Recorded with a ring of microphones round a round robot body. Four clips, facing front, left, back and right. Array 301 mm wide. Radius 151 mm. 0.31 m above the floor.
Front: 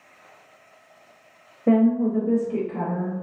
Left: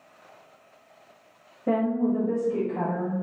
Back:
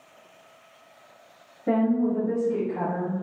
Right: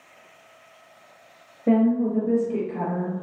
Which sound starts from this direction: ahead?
A woman speaking, at 1.7 s.